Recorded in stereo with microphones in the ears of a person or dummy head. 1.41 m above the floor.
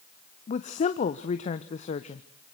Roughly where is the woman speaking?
Left.